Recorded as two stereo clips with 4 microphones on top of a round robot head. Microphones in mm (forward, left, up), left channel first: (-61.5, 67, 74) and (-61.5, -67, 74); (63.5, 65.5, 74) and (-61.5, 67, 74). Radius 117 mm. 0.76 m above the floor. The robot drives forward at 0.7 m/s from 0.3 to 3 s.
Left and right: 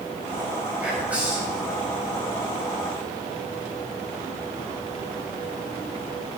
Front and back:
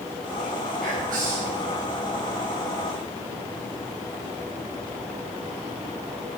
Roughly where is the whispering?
Behind.